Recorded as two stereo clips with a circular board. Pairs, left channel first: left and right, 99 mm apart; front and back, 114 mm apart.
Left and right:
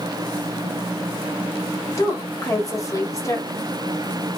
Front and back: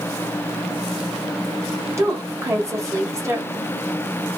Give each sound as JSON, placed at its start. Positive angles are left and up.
{"t": 2.0, "sound": "a woman speaking", "azimuth_deg": 125, "distance_m": 1.1}